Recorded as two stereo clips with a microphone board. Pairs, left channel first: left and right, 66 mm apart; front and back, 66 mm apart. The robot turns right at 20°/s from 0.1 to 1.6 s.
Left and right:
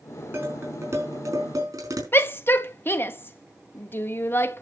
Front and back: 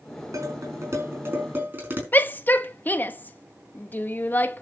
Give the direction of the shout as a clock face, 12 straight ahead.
10 o'clock.